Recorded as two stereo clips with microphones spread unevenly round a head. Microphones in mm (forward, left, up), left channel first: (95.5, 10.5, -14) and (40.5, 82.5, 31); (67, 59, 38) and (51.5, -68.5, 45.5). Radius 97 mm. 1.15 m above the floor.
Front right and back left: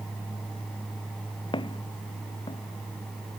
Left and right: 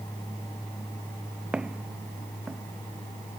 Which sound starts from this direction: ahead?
Footsteps, at 1.5 s.